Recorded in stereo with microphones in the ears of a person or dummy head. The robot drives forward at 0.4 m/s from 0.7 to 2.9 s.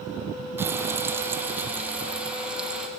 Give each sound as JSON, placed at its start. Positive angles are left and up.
{"t": 0.6, "sound": "frying", "side_deg": -20, "distance_m": 0.8}